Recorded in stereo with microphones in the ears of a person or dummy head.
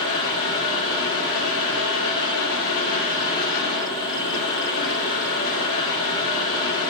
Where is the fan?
75° left (ahead or behind), 2.5 m.